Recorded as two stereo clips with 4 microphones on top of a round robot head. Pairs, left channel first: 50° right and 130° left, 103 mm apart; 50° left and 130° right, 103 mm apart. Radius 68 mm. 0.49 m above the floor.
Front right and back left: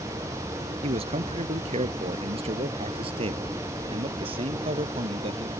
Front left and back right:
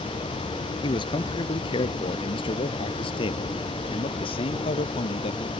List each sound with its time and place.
0.8 s a man speaking: 100° left; by 5.5 s 90° left